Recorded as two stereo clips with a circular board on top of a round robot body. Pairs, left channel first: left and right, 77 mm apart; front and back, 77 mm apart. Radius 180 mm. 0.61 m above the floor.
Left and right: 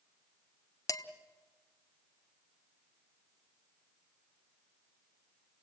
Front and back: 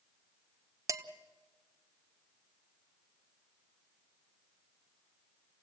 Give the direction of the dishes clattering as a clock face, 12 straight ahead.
8 o'clock.